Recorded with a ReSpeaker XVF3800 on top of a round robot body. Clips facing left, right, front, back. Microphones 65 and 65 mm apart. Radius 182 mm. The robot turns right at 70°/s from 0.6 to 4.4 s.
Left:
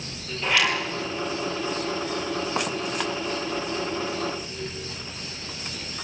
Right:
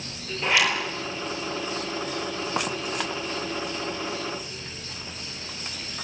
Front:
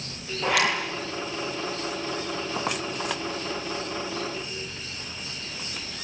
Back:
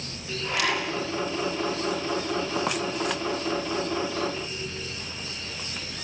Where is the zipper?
20° right, 9.5 m; by 0.8 s 5° right, 9.5 m.